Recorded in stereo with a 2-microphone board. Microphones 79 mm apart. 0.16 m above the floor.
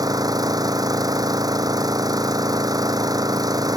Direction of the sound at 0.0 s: 55° right (ahead or behind).